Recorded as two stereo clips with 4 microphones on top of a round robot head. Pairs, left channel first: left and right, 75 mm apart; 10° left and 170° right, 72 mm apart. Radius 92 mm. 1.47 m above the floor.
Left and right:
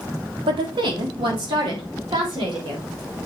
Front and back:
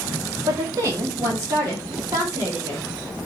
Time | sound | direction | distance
0.5 | a woman speaking | 115° right | 1.3 m